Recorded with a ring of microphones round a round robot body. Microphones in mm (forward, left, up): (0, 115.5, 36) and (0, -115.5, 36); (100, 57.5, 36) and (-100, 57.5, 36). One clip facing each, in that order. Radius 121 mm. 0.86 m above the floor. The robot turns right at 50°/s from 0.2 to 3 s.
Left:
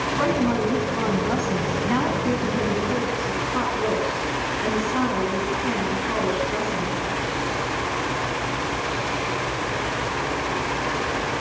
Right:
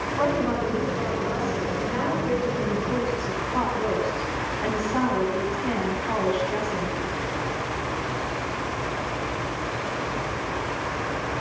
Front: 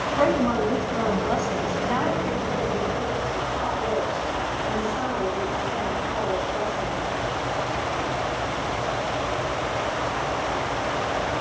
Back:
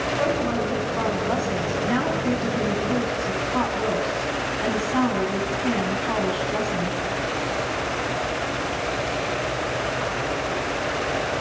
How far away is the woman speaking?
About 8 m.